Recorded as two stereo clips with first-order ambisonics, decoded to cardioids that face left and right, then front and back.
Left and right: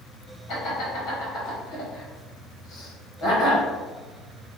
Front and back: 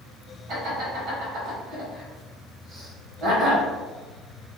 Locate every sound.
0.5 s laughter: 130° left, 1.6 m